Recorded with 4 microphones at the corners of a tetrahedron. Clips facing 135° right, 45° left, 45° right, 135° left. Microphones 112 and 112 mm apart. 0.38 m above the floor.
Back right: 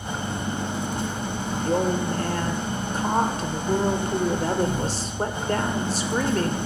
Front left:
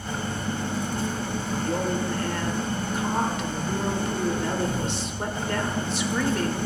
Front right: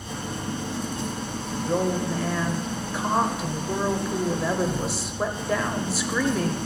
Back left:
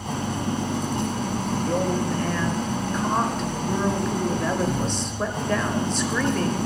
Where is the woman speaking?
120° right, 1.0 m.